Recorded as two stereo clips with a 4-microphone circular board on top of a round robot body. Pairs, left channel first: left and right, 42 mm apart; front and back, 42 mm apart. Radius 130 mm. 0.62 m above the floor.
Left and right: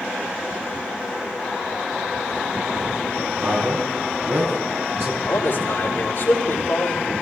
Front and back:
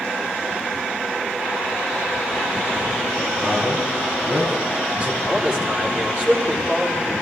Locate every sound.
3.4 s a man speaking: 120° right, 5 m
5.2 s a man speaking: 115° left, 3 m